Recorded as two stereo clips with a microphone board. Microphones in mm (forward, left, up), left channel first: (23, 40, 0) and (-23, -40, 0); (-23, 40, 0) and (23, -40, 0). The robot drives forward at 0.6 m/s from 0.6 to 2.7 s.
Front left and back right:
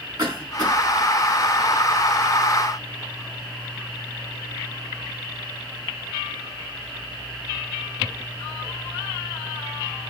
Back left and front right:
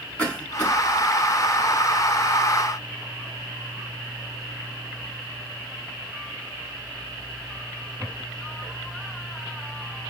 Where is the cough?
160° right, 3.5 m.